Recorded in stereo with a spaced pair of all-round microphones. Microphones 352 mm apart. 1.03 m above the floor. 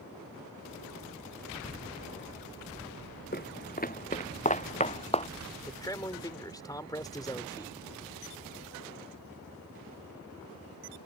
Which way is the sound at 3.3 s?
30° left (ahead or behind).